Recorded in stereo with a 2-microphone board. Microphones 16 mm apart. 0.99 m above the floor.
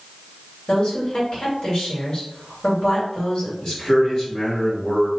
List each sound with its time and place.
0.7 s a woman speaking: 60° left (ahead or behind), 1.9 m
3.6 s a man speaking: 50° left (ahead or behind), 1.8 m